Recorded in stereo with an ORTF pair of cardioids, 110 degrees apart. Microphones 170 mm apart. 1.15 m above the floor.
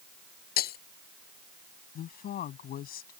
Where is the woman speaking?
60° left.